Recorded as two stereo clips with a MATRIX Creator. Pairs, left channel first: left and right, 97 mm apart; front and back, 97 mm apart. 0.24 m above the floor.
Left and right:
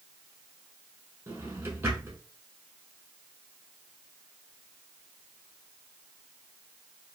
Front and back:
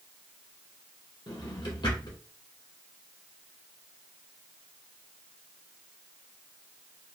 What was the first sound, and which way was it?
A drawer, 30° right.